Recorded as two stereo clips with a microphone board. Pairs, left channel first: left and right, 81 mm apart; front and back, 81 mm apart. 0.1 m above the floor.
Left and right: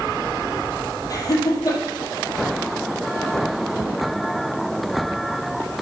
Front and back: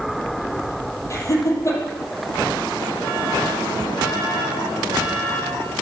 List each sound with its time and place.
1.1 s laughter: 50° left, 3 m